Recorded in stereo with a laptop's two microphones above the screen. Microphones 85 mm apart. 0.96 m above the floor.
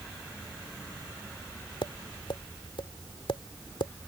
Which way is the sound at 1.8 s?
75° left (ahead or behind).